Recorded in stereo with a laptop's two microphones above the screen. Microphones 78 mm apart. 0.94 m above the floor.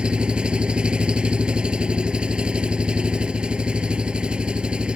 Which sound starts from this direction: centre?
An engine running, at 0.0 s.